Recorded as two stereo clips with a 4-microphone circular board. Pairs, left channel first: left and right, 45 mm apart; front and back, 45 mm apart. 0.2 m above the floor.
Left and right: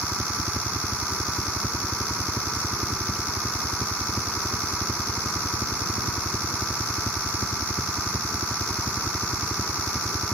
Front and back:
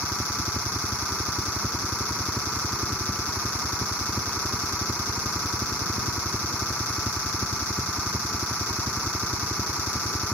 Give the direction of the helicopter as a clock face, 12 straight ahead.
5 o'clock.